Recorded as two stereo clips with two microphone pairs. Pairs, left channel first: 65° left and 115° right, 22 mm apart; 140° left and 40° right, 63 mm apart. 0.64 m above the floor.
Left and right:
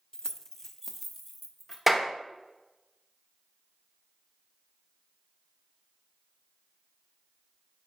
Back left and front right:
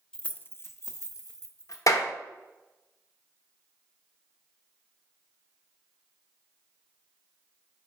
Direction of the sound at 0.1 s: 70° left.